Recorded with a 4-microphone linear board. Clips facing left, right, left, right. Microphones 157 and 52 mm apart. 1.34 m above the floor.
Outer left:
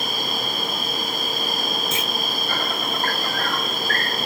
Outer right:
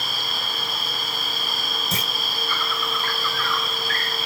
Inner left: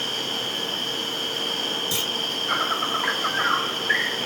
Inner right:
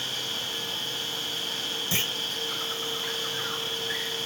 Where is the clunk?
40° right (ahead or behind).